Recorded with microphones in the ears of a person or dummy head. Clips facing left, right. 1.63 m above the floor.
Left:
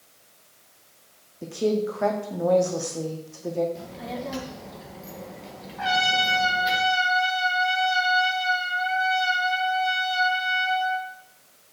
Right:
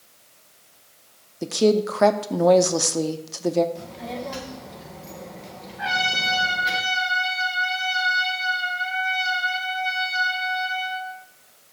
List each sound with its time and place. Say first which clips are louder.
1.4 s a woman speaking: right 5 dB; 80° right, 0.7 m
3.8 s a child speaking: right 1 dB; 5° left (ahead or behind), 1.4 m
5.8 s a trumpet: left 4 dB; 50° left (ahead or behind), 2 m